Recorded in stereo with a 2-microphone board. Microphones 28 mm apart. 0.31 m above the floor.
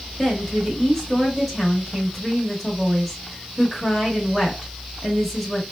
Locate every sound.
0.2 s a woman speaking: 10° left (ahead or behind), 1.1 m